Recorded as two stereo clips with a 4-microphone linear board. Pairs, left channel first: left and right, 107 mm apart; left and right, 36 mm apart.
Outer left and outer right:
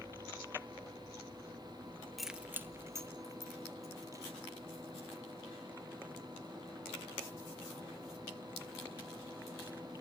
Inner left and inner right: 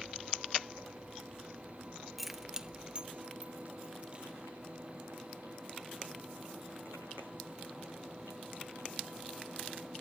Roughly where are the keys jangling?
Centre.